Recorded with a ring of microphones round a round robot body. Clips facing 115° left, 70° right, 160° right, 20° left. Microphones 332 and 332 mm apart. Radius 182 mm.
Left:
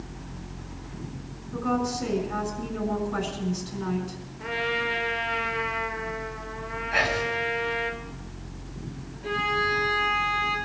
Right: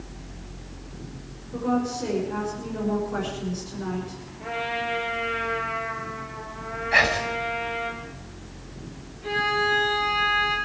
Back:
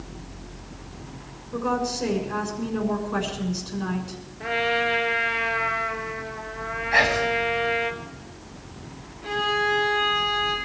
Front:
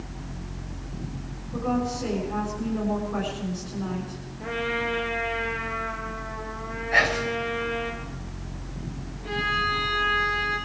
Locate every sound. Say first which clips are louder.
1.5 s a woman speaking: right 2 dB, even; straight behind, 6.5 m
4.4 s a trumpet: left 2 dB, back 3 dB; 170° left, 3 m
6.9 s whispering: right 1 dB, back 3 dB; 85° right, 4 m
9.2 s a violin: right 2 dB, back 7 dB; 135° right, 10 m